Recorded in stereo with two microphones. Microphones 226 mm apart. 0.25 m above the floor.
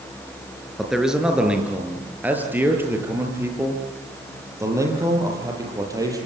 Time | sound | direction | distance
0.8 | a man speaking | centre (ahead or behind) | 4.5 m